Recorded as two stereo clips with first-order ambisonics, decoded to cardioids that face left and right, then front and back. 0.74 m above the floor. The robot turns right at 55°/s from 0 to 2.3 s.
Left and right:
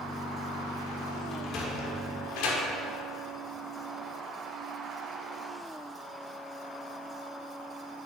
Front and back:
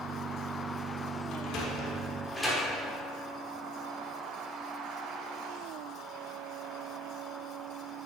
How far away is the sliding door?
About 1.2 m.